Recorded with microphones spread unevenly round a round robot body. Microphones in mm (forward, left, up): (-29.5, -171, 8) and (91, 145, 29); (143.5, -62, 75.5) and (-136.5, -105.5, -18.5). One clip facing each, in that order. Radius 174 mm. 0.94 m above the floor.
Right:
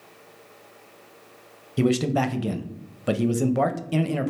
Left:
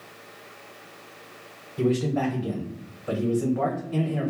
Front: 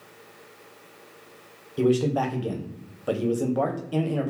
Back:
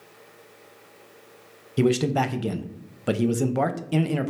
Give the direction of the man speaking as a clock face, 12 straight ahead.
4 o'clock.